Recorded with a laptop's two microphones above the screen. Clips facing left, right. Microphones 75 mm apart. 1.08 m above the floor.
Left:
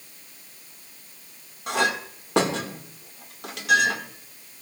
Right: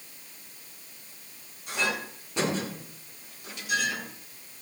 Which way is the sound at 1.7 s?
80° left.